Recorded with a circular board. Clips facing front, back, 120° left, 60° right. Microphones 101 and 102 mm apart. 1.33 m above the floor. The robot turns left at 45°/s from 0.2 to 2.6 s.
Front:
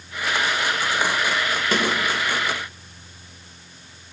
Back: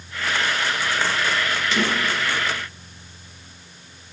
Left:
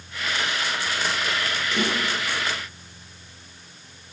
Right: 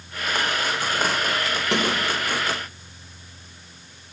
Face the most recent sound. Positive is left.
turn(degrees=-80)